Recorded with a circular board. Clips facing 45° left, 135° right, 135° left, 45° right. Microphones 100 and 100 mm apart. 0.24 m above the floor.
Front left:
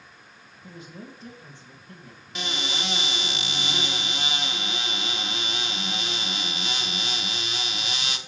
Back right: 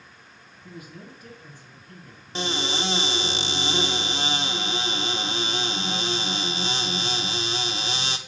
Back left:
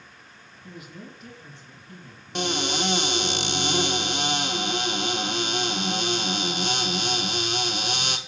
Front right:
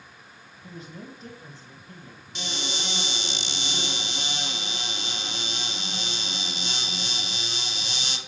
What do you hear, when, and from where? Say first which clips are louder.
0.6 s a man speaking: even, front right 1 dB; 5° right, 2 m
2.4 s a cupboard door: back right 5 dB, back left 9 dB; 165° left, 0.9 m